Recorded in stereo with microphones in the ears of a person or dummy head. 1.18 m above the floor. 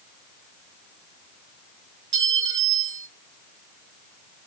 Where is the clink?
25° right (ahead or behind), 0.7 m.